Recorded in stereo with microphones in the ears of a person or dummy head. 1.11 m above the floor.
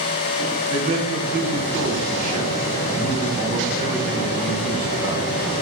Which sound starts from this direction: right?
A man speaking, at 0.7 s.